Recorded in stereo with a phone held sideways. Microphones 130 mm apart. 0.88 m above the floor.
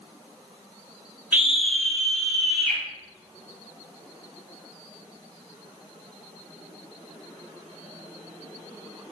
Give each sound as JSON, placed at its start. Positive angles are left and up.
{"t": 1.3, "sound": "a scream", "side_deg": -15, "distance_m": 0.5}